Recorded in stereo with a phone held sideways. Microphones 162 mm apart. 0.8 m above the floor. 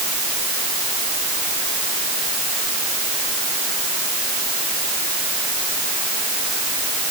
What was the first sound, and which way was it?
Only background noise.